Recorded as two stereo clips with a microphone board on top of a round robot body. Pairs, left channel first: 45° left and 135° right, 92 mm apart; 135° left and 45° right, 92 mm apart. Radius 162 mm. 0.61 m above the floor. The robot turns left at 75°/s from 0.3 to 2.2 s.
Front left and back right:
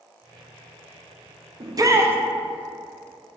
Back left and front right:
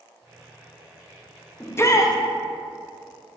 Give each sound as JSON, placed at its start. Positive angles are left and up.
{"t": 1.6, "sound": "a shout", "azimuth_deg": -155, "distance_m": 0.7}